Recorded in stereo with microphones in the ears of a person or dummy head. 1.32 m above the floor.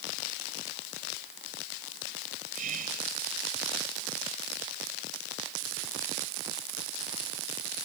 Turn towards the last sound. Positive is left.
turn(degrees=-55)  # may be behind; listen again after turning